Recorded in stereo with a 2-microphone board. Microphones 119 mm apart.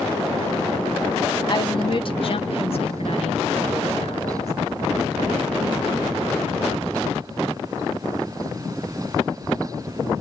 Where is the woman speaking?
35° left (ahead or behind), 0.7 m; by 4.5 s 60° left (ahead or behind), 2.5 m.